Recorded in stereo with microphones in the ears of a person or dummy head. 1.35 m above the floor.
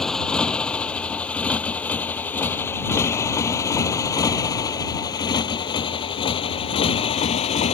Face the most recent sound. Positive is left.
turn(degrees=35)  # may be behind; listen again after turning